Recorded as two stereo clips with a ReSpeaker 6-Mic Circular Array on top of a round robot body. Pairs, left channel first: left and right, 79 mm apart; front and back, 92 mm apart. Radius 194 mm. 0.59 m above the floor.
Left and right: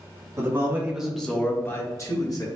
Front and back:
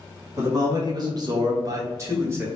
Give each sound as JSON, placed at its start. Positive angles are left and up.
{"t": 0.4, "sound": "a man speaking", "azimuth_deg": -135, "distance_m": 1.6}